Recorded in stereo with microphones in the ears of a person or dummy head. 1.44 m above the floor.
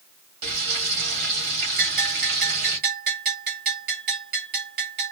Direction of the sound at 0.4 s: 55° right (ahead or behind).